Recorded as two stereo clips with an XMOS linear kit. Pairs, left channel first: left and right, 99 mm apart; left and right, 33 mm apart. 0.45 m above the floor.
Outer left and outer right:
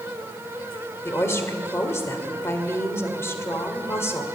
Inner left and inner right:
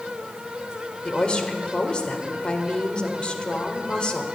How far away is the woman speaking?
About 1.7 m.